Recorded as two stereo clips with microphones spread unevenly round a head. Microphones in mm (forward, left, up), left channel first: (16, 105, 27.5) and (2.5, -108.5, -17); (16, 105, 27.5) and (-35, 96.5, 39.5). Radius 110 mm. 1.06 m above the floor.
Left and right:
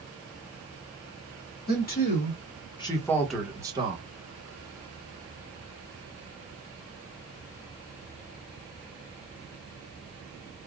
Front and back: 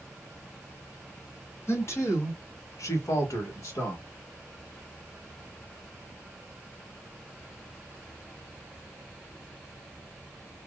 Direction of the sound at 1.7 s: 40° left.